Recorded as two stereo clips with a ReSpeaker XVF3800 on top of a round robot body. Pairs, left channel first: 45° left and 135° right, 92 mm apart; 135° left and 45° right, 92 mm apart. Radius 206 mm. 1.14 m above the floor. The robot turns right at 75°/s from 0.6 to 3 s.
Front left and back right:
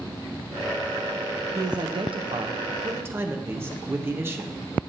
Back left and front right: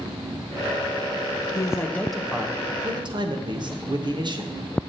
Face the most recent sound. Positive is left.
turn(degrees=-70)